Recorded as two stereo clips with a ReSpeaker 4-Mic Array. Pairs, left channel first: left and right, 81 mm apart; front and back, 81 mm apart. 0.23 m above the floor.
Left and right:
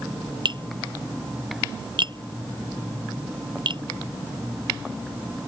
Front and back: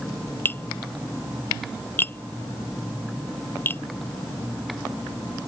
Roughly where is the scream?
I don't hear a scream.